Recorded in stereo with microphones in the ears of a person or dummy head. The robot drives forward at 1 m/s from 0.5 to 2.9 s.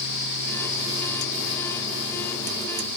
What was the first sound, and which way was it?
Only background noise.